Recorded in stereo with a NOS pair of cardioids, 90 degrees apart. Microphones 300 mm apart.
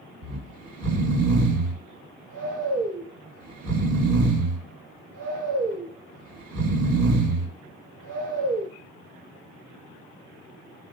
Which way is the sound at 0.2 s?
60° right.